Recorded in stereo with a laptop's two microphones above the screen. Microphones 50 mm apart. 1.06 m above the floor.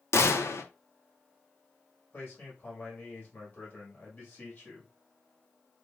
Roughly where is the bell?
No bell in this recording.